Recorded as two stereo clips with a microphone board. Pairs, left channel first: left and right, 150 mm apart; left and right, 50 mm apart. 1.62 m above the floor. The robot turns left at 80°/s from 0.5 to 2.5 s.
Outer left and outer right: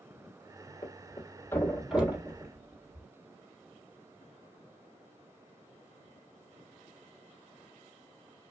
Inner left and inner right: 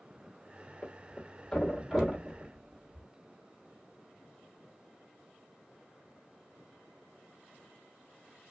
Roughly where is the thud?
Left.